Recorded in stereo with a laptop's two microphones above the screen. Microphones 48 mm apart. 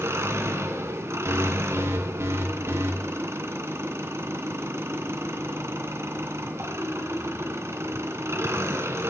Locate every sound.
0.0 s an engine running: 65° right (ahead or behind), 3 m
1.2 s an alarm: 70° right (ahead or behind), 2.5 m